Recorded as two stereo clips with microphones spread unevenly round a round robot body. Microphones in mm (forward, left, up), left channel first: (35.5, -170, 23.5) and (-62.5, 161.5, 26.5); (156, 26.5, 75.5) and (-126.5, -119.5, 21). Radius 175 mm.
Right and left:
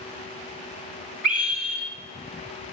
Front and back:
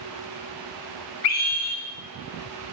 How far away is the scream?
About 1.4 m.